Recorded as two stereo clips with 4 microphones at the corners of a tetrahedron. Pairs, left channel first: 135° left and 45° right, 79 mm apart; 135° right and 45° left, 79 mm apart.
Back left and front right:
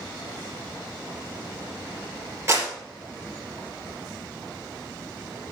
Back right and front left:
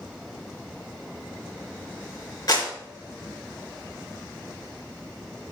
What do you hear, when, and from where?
2.5 s a clap: 100° right, 3.5 m